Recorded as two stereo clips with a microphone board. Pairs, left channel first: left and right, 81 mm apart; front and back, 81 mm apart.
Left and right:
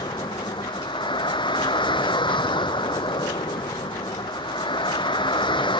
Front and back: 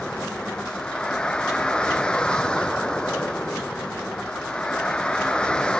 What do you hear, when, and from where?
0.0 s a vehicle: 80° left